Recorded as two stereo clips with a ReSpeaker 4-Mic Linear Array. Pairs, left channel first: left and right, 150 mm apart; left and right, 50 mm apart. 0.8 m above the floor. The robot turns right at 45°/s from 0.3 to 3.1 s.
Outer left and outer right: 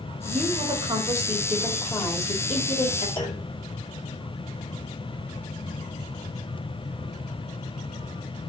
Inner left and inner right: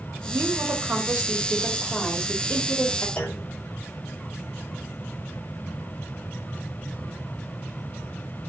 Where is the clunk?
35° left (ahead or behind), 3 m.